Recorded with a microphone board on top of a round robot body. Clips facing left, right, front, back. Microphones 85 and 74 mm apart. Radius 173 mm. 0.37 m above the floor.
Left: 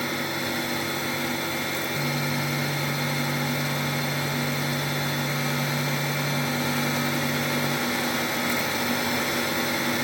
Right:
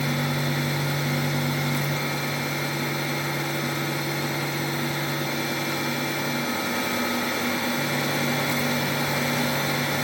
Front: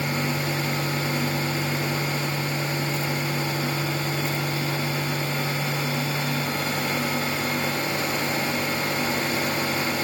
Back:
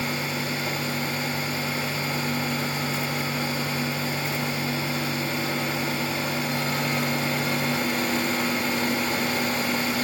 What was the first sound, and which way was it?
Only background noise.